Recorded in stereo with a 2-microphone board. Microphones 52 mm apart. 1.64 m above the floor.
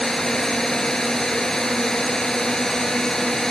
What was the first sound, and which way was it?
A drone, 10° left (ahead or behind).